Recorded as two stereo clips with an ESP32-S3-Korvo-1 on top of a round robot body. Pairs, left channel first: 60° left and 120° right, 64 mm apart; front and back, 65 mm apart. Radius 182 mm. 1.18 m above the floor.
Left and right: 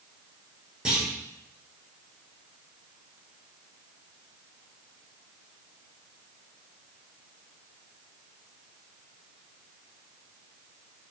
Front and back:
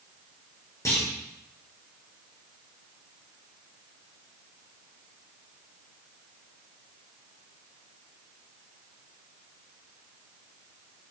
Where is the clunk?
40° right, 3.5 m.